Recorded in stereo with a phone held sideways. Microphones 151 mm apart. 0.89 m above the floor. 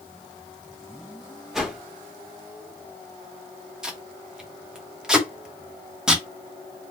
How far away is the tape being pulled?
About 0.8 m.